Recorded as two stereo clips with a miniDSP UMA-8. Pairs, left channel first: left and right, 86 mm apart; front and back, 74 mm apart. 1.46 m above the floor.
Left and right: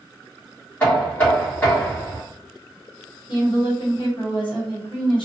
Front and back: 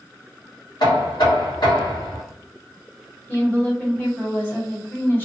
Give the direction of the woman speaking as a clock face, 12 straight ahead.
10 o'clock.